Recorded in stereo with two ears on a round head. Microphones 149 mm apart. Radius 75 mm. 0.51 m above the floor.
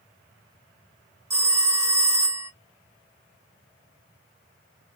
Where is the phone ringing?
15° right (ahead or behind), 1.0 m.